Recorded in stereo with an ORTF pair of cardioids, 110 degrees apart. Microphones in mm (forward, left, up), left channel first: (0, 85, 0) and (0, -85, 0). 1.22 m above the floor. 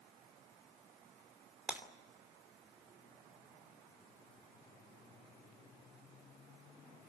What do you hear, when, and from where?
1.7 s breaking glass: 10° right, 2.5 m